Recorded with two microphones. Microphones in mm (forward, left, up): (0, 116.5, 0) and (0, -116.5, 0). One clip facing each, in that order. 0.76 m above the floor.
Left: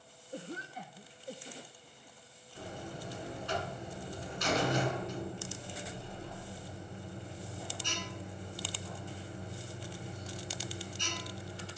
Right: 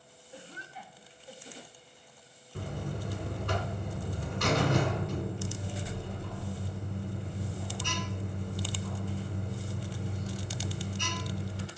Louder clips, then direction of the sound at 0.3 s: Left 6 dB; 45° left (ahead or behind).